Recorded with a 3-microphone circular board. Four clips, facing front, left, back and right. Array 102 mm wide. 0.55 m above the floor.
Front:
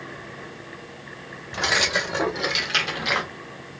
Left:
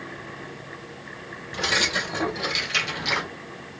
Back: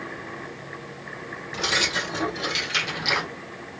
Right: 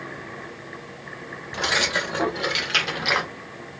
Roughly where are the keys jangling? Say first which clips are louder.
Right 2 dB, front 3 dB; ahead right.